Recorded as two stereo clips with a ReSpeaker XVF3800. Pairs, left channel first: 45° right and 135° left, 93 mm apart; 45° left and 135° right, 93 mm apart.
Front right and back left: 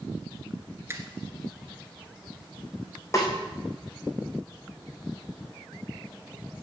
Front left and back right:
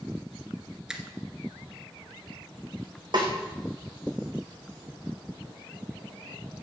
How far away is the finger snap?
About 1.3 m.